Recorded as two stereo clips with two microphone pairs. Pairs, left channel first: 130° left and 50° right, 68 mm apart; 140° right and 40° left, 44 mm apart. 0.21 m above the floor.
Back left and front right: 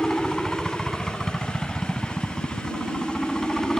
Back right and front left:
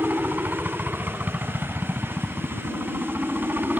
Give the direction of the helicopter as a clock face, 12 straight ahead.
10 o'clock.